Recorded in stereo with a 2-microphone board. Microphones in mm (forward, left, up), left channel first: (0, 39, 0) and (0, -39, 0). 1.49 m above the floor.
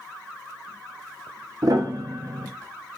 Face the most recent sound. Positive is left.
turn(degrees=-55)  # may be behind; listen again after turning